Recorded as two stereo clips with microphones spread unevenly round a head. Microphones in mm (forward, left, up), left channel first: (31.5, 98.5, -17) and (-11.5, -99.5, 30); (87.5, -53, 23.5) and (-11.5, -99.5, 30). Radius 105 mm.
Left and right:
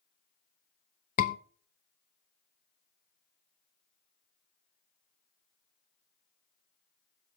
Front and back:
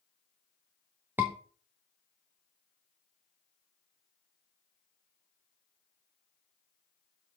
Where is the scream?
125° left, 0.6 m.